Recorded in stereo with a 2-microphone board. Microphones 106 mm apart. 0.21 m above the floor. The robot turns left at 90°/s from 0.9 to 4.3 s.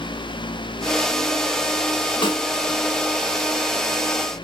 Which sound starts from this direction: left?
A snare drum, at 2.2 s.